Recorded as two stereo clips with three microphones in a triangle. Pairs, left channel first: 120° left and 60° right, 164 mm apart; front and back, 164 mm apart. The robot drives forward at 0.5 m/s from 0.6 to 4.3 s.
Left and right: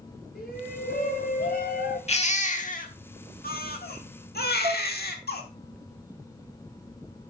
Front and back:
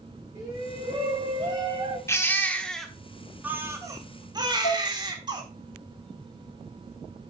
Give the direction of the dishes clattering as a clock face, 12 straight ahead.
12 o'clock.